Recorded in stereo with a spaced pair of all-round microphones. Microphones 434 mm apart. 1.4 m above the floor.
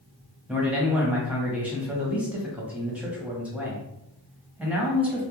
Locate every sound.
0.5 s a man speaking: 5° right (ahead or behind), 0.8 m